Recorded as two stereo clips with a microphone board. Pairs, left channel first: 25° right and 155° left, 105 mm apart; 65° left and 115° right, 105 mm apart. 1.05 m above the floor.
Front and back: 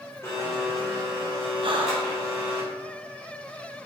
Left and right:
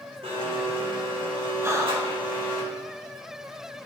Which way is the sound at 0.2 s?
85° right.